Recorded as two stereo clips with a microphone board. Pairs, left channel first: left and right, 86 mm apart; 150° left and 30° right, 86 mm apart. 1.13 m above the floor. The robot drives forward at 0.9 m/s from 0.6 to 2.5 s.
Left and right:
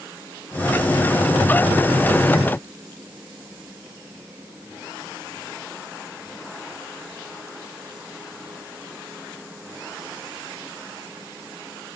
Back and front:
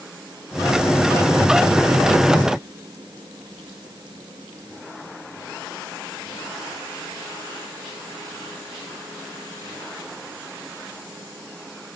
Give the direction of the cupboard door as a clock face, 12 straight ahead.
No cupboard door in this recording.